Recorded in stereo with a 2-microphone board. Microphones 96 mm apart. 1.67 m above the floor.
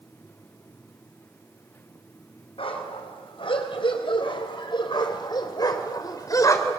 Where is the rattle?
I don't hear a rattle.